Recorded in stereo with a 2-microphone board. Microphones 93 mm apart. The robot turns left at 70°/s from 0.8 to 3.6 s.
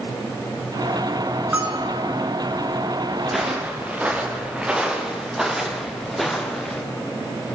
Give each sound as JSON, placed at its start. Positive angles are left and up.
{"t": 1.5, "sound": "a bell", "azimuth_deg": -15, "distance_m": 4.0}
{"t": 3.2, "sound": "footsteps", "side_deg": 5, "distance_m": 5.5}